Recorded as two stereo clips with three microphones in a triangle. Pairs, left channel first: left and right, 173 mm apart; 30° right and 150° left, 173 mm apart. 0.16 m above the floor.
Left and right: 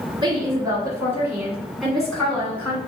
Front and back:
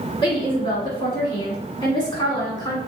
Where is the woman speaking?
55° right, 1.8 m; by 2.8 s 20° left, 1.9 m.